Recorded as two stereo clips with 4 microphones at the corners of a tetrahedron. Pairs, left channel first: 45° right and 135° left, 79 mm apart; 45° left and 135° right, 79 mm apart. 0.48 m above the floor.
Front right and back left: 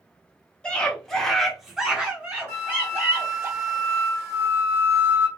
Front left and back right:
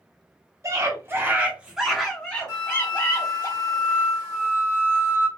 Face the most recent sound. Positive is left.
turn(degrees=180)